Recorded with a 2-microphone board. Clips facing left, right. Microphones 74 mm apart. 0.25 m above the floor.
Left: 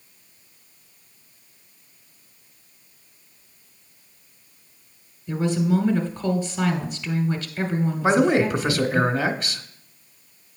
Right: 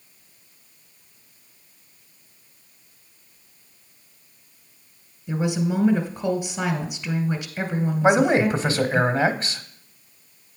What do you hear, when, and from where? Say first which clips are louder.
5.3 s a woman speaking: left 2 dB; 15° right (ahead or behind), 1.1 m
8.0 s a man speaking: right 1 dB; 35° right (ahead or behind), 1.1 m